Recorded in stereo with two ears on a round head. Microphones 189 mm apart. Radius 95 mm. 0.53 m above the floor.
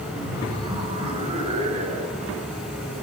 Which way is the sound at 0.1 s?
15° right (ahead or behind).